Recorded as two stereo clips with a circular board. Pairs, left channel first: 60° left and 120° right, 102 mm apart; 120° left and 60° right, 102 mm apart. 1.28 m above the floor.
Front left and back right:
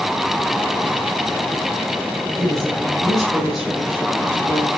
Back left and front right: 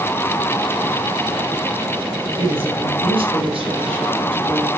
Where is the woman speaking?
30° right, 6 m.